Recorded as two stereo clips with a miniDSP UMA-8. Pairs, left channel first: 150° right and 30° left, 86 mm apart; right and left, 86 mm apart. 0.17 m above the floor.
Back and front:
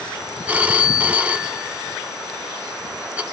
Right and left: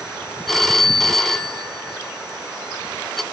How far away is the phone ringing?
About 0.6 m.